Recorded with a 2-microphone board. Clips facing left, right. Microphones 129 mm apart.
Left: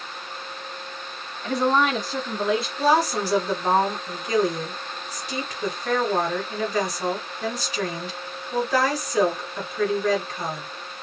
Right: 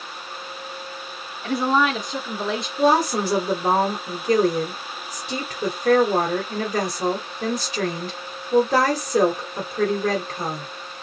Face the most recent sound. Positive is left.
turn(degrees=-35)  # may be behind; listen again after turning